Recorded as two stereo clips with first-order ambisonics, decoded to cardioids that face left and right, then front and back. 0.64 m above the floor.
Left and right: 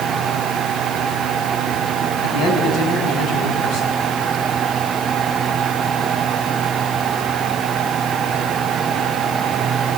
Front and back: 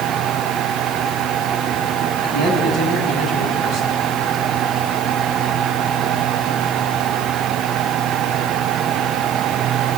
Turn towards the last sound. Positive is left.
turn(degrees=125)